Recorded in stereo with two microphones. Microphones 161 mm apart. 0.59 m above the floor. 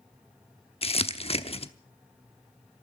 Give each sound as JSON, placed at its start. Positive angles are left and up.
{"t": 0.8, "sound": "crumpling", "side_deg": 35, "distance_m": 0.9}